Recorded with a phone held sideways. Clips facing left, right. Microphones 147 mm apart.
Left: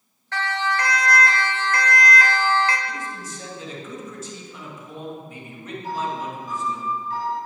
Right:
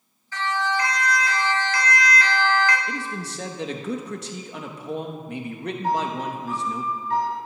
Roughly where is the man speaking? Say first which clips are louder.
Right 2 dB; right.